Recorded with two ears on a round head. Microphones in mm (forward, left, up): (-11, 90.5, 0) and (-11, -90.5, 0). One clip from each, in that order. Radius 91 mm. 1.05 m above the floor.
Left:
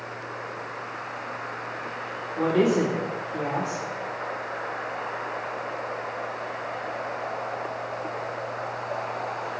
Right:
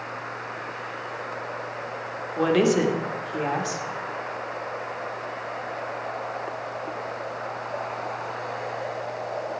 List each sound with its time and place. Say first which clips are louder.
2.4 s a woman speaking: right 2 dB; 55° right (ahead or behind), 2 m